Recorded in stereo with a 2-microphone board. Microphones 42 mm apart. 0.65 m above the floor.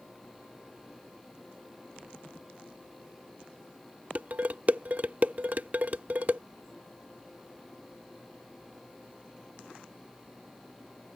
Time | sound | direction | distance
4.2 | dishes clattering | 40° right (ahead or behind) | ?